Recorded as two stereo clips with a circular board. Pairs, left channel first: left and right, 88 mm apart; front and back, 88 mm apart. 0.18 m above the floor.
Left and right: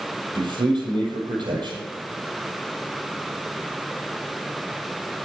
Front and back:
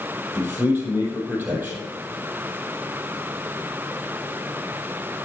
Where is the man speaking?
110° right, 5 m.